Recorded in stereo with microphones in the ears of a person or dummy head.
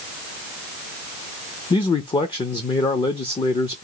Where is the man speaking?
30° left (ahead or behind), 0.5 m.